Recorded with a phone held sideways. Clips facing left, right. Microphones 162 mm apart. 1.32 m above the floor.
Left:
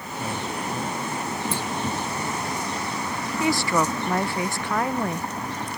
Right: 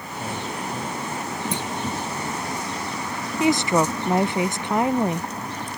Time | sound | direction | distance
1.5 | a clunk | 20° right (ahead or behind) | ?
3.4 | a woman speaking | 20° right (ahead or behind) | ?